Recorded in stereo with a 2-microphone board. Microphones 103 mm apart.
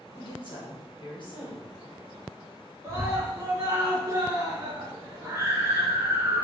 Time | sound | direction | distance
0.1 | a woman speaking | 50° left (ahead or behind) | 2 m
2.8 | a scream | 30° right (ahead or behind) | 1.7 m